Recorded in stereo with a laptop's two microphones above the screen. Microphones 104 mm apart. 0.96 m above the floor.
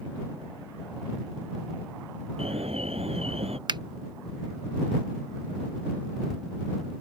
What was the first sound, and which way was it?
An alarm, 75° right (ahead or behind).